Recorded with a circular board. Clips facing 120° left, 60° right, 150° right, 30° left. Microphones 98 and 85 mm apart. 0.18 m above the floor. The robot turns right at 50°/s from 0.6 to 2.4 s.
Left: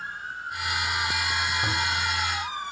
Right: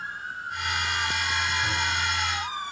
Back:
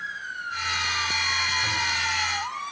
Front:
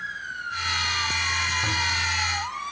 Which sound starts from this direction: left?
A toilet flushing, at 1.6 s.